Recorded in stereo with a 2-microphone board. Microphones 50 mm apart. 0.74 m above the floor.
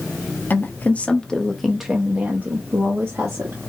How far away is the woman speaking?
About 0.9 m.